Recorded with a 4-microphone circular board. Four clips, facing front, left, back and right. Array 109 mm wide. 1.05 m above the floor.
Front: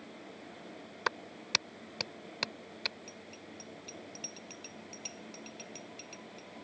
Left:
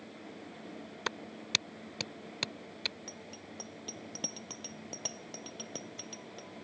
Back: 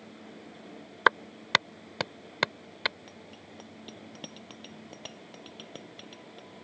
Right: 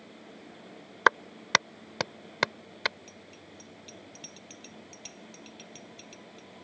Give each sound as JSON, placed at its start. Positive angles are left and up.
{"t": 1.1, "sound": "a clap", "azimuth_deg": -120}
{"t": 3.1, "sound": "a bicycle bell", "azimuth_deg": 120}